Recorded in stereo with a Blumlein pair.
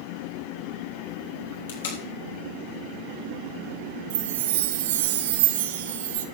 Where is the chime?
50° right, 1.0 m.